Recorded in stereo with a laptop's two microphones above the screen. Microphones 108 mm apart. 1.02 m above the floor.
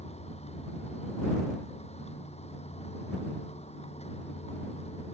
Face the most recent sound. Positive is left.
turn(degrees=75)  # may be behind; listen again after turning